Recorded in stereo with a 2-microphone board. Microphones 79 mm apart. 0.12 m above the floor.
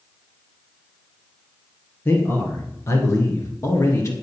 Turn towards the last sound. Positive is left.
turn(degrees=40)  # may be behind; listen again after turning